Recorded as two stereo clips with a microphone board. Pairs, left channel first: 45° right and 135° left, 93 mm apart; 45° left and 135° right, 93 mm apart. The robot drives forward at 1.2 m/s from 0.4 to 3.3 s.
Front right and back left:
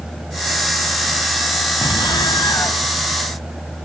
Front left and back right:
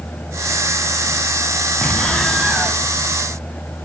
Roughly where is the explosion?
Ahead right.